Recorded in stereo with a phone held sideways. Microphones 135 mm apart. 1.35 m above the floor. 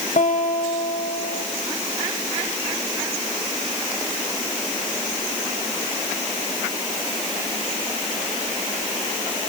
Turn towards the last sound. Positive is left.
turn(degrees=70)  # may be behind; listen again after turning